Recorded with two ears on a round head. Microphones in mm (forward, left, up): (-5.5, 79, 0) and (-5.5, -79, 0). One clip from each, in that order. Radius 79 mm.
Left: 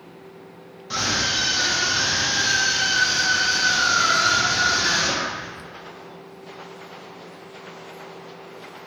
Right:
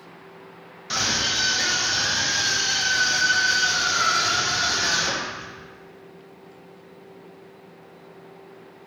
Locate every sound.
0.9 s a scream: 55° right (ahead or behind), 0.9 m; by 5.5 s 75° right (ahead or behind), 3 m